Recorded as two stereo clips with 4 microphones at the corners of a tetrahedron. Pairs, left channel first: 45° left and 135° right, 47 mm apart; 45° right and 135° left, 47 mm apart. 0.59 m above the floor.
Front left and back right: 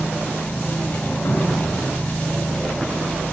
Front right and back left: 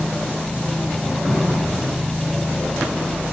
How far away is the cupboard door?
About 3.5 m.